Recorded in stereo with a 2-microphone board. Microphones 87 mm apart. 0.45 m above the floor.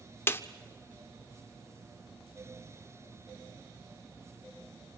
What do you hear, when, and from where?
0.3 s a snare drum: 25° left (ahead or behind), 0.8 m